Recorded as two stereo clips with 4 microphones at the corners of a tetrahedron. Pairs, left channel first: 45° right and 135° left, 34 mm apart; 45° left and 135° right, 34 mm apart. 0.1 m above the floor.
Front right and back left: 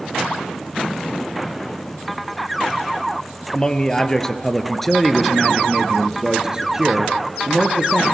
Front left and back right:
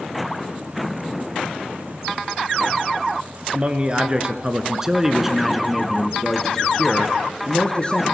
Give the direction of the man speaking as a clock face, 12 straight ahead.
3 o'clock.